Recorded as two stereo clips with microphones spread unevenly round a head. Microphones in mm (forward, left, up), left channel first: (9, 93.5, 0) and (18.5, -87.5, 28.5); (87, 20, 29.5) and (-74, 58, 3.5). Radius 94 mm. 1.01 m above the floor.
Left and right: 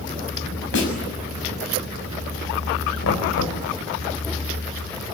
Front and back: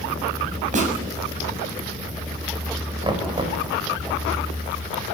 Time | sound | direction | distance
0.7 | a snare drum | 120° left | 6.5 m
3.0 | knocking | 105° left | 4.5 m